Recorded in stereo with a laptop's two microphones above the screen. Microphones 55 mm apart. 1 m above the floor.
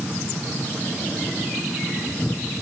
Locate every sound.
Only background noise.